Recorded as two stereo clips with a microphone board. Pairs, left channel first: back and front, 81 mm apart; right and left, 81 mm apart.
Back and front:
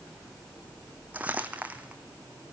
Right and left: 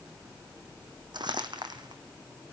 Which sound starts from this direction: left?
Crumpling, at 1.1 s.